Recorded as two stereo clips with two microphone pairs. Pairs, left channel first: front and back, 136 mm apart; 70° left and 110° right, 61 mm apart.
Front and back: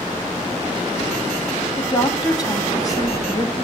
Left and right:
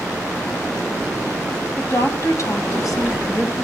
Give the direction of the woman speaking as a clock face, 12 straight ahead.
10 o'clock.